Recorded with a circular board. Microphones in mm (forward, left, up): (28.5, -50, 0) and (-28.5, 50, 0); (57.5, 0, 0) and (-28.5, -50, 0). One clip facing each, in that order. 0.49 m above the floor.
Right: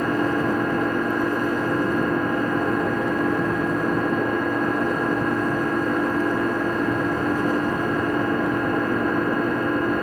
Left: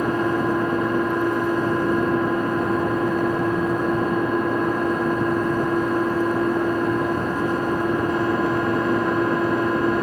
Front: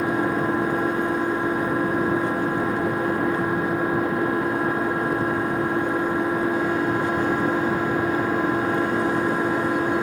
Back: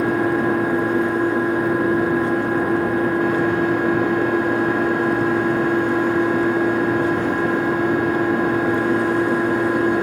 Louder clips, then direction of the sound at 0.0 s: Left 1 dB, back 4 dB; 175° right.